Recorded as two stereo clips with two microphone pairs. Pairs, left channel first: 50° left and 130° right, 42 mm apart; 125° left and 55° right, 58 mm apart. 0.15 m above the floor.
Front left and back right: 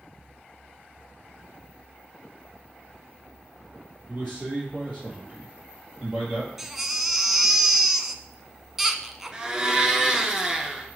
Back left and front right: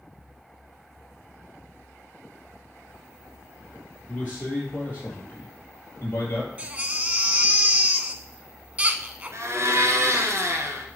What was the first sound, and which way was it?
A man speaking, 170° right.